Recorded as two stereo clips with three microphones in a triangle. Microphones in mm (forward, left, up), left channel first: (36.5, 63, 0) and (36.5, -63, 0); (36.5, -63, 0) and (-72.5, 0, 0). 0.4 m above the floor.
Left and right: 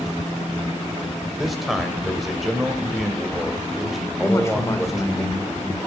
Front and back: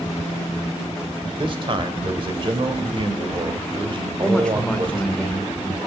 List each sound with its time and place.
1.2 s a man speaking: straight behind, 1.6 m
4.2 s a man speaking: 45° left, 1.3 m